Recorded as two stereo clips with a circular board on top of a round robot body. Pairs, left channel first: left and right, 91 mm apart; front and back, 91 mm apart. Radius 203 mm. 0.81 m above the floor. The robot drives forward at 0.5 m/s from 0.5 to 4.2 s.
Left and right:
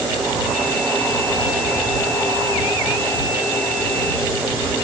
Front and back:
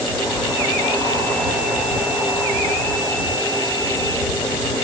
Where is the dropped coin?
No dropped coin in this recording.